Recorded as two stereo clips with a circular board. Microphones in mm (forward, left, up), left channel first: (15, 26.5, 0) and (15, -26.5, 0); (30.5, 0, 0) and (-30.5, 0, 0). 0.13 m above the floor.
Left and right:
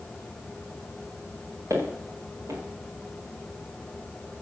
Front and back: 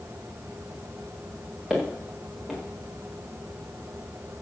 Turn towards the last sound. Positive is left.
turn(degrees=-95)